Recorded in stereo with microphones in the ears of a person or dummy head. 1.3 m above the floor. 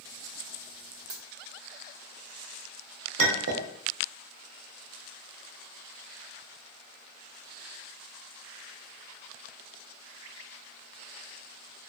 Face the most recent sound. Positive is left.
turn(degrees=-65)  # may be behind; listen again after turning